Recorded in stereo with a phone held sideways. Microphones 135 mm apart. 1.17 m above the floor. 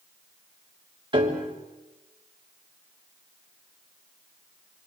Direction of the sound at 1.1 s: 35° right (ahead or behind).